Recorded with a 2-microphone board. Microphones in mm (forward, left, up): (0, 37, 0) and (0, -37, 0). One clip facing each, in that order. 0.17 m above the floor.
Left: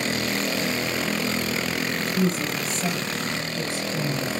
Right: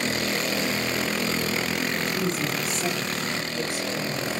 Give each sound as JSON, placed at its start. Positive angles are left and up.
{"t": 2.0, "sound": "a woman speaking", "side_deg": 5, "distance_m": 4.0}